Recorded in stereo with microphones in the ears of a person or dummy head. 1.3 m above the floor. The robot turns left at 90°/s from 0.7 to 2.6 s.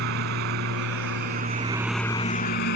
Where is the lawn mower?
70° right; by 2.8 s 120° left.